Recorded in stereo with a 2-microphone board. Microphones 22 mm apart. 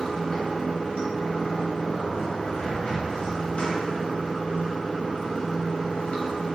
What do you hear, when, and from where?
0.0 s running water: 75° left (ahead or behind), 0.7 m